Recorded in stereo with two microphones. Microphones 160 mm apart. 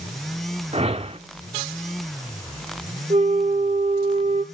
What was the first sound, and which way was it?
A whoosh, 40° right (ahead or behind).